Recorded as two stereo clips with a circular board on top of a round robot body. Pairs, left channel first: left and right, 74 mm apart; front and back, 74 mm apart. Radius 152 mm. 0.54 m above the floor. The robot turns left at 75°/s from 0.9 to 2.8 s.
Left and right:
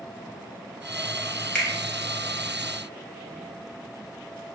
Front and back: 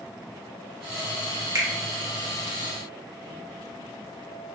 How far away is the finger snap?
About 1.0 m.